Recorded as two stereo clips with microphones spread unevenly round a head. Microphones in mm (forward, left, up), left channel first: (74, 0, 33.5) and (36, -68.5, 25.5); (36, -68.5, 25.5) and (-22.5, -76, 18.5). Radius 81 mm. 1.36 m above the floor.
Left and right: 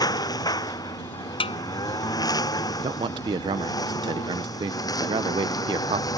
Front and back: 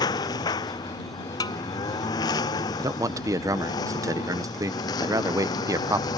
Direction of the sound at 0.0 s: 25° left.